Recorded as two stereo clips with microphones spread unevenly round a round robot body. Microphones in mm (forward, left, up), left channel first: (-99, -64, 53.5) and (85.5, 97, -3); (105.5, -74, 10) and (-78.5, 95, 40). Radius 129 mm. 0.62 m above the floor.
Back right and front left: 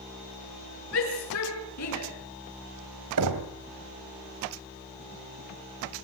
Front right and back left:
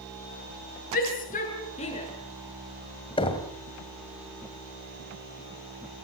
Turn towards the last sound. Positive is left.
turn(degrees=25)